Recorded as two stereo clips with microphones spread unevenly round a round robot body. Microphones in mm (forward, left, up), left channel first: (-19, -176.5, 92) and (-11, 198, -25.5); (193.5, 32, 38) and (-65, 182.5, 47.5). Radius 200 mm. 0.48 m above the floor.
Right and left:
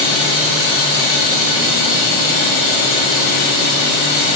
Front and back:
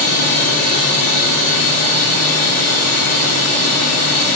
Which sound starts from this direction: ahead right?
Running water, at 0.0 s.